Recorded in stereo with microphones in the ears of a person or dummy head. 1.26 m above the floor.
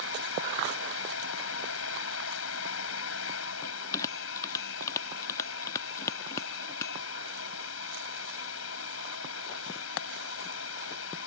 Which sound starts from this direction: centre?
A bell, at 3.6 s.